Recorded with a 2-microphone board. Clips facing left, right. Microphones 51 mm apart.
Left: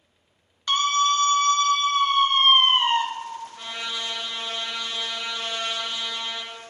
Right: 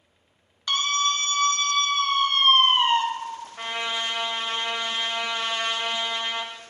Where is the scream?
15° left (ahead or behind), 1.4 m.